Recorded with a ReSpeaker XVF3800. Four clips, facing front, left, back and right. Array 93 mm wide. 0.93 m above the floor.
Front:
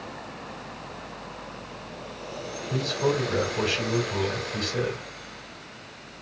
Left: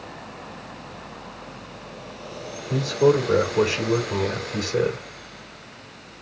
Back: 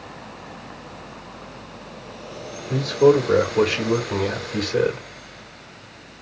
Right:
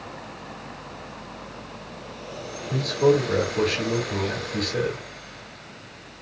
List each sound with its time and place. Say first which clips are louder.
2.7 s a man speaking: left 1 dB, back 10 dB; 160° left, 2 m